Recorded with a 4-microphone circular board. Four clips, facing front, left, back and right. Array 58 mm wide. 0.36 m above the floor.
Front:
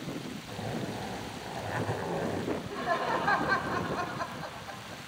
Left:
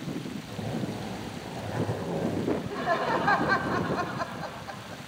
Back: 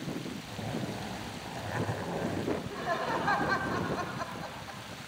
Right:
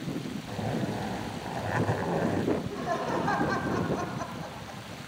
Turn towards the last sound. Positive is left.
turn(degrees=75)